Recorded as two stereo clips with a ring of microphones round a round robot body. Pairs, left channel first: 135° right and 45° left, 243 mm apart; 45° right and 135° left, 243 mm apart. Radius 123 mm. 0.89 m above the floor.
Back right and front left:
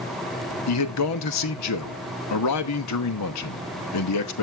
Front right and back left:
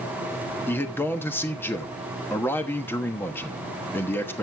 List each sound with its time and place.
0.7 s a man speaking: 125° right, 1.1 m